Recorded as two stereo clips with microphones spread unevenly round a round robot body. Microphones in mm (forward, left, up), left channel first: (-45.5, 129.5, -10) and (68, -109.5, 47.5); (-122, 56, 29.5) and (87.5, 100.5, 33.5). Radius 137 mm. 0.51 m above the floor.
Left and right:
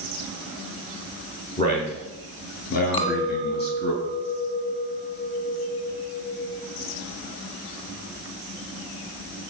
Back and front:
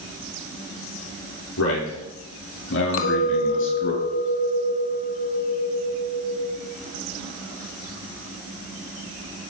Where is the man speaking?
Straight behind, 8.5 m; by 3.9 s 165° left, 5.5 m.